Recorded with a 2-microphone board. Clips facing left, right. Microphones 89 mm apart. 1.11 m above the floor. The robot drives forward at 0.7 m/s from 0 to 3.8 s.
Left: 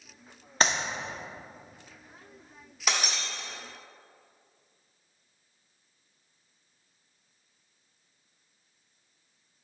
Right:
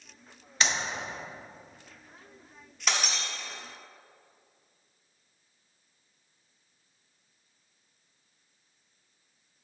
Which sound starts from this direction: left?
A clap, at 0.6 s.